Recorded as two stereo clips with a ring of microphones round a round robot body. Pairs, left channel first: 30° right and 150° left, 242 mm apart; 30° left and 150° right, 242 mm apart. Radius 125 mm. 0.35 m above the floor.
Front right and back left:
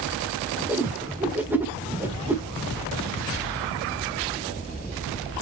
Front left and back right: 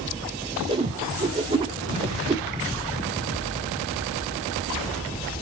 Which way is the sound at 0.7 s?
140° right.